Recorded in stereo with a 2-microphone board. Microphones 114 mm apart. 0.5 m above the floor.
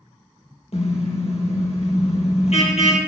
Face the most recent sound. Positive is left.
turn(degrees=65)  # may be behind; listen again after turning